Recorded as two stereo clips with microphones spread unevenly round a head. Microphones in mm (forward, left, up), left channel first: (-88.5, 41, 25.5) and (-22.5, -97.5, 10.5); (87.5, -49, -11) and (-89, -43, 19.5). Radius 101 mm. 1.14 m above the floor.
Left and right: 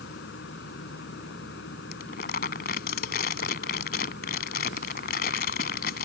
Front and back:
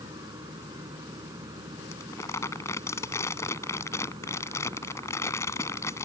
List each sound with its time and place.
0.0 s a fan: 105° left
1.9 s crumpling: 80° left